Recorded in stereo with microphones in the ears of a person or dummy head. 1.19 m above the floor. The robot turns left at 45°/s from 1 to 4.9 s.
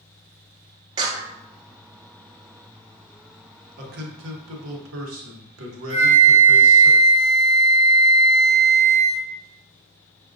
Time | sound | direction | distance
1.0 | a clap | 25° right (ahead or behind) | 0.7 m
3.8 | a man speaking | 50° right | 0.9 m
5.9 | a flute | 50° left (ahead or behind) | 1.8 m